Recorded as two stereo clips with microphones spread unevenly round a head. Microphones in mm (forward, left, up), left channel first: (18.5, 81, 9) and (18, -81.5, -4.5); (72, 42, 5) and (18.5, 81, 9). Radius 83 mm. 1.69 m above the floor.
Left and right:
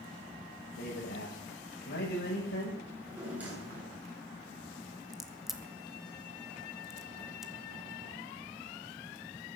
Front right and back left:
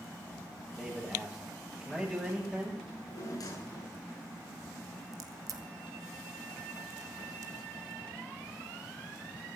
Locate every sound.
0.8 s a man speaking: 60° left, 8.5 m
2.9 s a drawer: 10° right, 7 m
5.1 s a crack: 175° left, 1.1 m